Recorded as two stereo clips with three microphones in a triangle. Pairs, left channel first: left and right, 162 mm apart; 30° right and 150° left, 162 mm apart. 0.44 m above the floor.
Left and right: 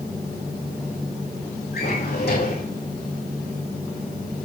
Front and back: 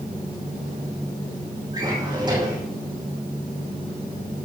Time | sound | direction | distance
1.7 | a drawer | 85° left | 6.5 m